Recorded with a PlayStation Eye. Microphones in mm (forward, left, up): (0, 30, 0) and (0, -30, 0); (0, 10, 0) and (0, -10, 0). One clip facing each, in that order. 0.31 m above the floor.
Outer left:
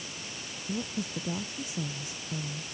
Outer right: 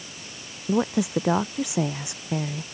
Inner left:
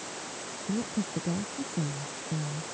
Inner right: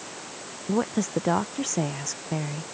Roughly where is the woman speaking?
Right.